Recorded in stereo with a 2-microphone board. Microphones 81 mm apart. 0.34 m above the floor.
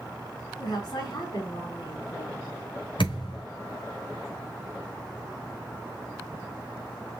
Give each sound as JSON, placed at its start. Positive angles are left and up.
{"t": 0.6, "sound": "a woman speaking", "side_deg": 65, "distance_m": 2.5}
{"t": 3.0, "sound": "a thud", "side_deg": 80, "distance_m": 3.0}